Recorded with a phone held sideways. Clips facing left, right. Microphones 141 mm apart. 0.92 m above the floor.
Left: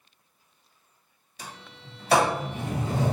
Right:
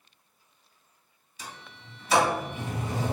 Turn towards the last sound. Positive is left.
turn(degrees=60)  # may be behind; listen again after turning